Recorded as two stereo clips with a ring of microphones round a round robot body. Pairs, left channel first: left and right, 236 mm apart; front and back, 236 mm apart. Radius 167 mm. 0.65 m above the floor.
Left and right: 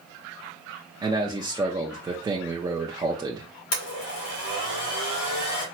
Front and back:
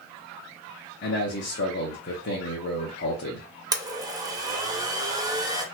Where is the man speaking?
20° right, 1.0 m.